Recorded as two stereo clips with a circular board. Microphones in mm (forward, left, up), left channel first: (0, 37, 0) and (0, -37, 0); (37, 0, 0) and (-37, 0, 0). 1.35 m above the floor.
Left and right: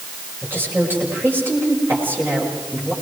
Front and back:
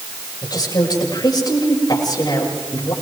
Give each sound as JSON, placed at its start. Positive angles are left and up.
{"t": 0.4, "sound": "a woman speaking", "azimuth_deg": -30, "distance_m": 6.0}